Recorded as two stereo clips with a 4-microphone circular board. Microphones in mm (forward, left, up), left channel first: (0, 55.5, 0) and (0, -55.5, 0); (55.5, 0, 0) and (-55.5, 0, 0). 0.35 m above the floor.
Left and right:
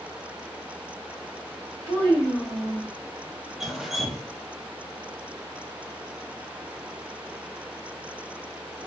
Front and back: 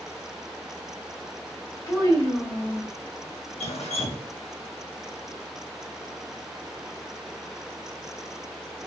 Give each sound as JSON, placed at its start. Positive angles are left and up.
{"t": 1.9, "sound": "a child speaking", "azimuth_deg": -65, "distance_m": 1.8}
{"t": 3.6, "sound": "dripping", "azimuth_deg": 0, "distance_m": 0.5}